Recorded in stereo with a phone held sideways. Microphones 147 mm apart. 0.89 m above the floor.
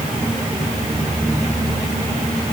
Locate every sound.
Only background noise.